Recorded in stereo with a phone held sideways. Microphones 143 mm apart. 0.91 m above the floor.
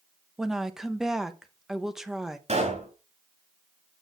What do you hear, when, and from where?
0.4 s a woman speaking: 5° right (ahead or behind), 0.9 m
2.5 s a pop: 55° right (ahead or behind), 5 m